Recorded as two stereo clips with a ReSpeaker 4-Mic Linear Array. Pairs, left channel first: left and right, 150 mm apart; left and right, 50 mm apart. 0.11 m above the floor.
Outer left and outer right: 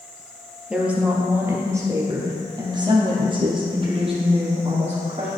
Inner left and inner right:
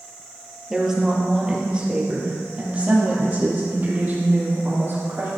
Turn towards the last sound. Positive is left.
turn(degrees=-45)  # may be behind; listen again after turning